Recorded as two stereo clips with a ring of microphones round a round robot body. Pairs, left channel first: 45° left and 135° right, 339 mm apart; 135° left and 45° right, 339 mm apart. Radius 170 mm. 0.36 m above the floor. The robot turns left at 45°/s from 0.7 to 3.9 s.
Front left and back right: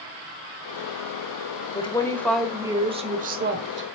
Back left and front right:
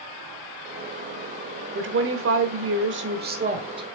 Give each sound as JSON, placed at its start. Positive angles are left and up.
{"t": 1.8, "sound": "a woman speaking", "azimuth_deg": -15, "distance_m": 1.3}